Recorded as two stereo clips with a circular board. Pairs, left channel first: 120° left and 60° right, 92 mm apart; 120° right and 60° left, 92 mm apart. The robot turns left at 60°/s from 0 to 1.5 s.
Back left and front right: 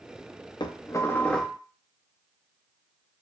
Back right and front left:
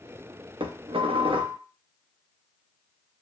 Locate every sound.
0.6 s dishes clattering: 85° left, 0.5 m; by 1.6 s 30° left, 0.5 m